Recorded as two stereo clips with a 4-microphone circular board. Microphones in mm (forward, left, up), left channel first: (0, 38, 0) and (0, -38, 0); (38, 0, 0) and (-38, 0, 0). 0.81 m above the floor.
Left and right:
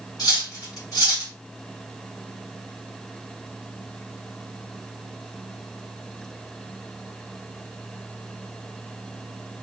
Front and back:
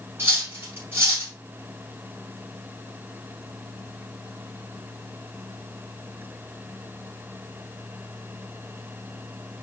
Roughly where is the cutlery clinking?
Behind left.